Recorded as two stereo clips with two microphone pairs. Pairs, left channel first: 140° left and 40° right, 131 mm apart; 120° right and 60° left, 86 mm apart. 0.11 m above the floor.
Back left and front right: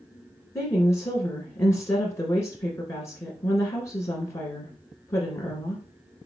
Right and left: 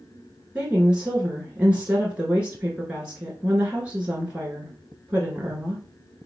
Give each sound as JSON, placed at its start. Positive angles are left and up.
{"t": 0.6, "sound": "a woman speaking", "azimuth_deg": 110, "distance_m": 1.2}